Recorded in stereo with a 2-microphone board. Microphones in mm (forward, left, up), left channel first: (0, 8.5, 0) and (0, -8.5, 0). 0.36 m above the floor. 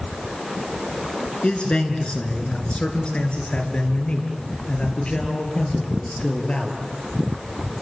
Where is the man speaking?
75° left (ahead or behind), 4.5 m; by 6.8 s 65° left (ahead or behind), 7 m.